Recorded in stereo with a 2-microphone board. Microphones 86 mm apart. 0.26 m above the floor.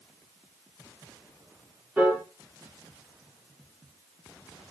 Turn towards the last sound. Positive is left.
turn(degrees=-20)  # may be behind; listen again after turning